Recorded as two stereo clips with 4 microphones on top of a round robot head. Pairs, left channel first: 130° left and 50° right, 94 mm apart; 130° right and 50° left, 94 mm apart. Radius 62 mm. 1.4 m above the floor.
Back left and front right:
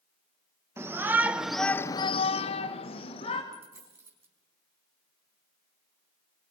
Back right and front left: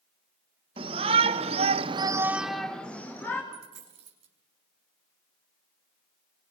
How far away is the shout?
About 1.9 m.